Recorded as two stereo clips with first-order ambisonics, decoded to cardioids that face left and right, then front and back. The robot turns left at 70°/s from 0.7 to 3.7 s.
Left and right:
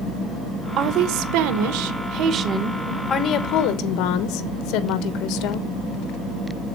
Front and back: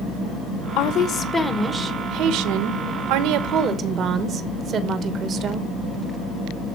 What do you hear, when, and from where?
0.8 s a woman speaking: 35° right, 1.1 m; by 5.7 s 120° left, 1.1 m